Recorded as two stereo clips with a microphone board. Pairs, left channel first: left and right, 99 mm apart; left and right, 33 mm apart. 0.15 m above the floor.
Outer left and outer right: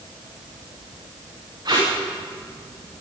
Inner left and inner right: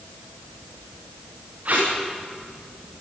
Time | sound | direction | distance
1.6 | tape being pulled | 45° right (ahead or behind) | 8.5 m